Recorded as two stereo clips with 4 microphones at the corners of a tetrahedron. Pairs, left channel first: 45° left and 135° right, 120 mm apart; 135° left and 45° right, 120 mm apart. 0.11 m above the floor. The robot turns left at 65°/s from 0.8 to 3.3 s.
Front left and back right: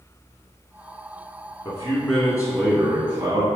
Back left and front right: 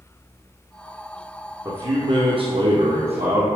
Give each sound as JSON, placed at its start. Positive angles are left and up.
{"t": 1.6, "sound": "a man speaking", "azimuth_deg": -10, "distance_m": 1.9}